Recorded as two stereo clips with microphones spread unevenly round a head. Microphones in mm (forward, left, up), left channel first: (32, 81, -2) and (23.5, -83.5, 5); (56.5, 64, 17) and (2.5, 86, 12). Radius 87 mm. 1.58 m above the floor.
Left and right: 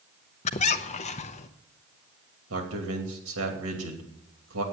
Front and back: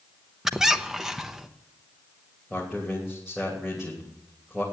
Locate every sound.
0.5 s a squeak: 75° left, 0.7 m
2.5 s a man speaking: 115° right, 3 m